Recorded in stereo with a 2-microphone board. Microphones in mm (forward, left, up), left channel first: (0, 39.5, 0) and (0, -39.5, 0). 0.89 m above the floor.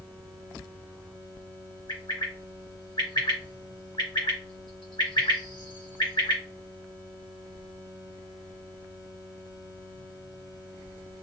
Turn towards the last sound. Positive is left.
turn(degrees=65)  # may be behind; listen again after turning